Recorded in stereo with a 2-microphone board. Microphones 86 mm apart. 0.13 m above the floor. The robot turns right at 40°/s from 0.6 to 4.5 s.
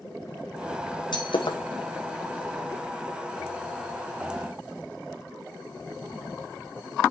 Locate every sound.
1.1 s breaking glass: 65° left (ahead or behind), 1.2 m; by 1.6 s 80° left, 1.2 m